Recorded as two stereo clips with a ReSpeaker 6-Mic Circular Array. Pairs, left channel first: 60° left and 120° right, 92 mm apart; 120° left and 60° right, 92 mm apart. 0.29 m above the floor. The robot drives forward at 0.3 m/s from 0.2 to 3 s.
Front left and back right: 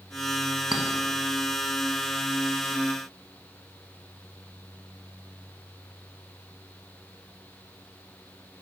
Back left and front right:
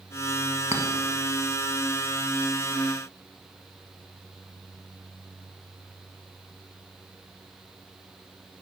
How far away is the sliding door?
No sliding door in this recording.